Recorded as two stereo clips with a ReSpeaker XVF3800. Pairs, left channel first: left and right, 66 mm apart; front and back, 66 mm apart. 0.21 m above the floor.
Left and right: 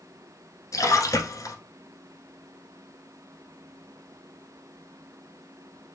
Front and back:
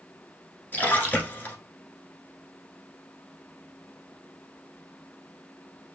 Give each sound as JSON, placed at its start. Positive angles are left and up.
{"t": 0.7, "sound": "a splash", "azimuth_deg": 60, "distance_m": 1.2}